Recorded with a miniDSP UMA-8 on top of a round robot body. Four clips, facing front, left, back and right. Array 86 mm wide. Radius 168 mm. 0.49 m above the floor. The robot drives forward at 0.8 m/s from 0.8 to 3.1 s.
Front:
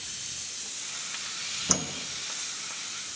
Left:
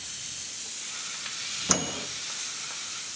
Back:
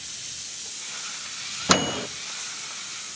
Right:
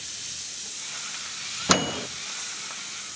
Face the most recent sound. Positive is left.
turn(degrees=-175)